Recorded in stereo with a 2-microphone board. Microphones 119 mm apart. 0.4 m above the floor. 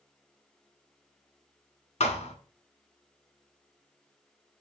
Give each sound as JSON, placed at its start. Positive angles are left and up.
{"t": 2.0, "sound": "a thud", "side_deg": 70, "distance_m": 0.8}